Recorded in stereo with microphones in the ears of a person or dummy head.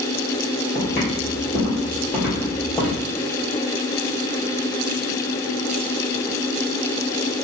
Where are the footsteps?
25° left (ahead or behind), 1.5 m; by 3.0 s 5° left (ahead or behind), 2 m.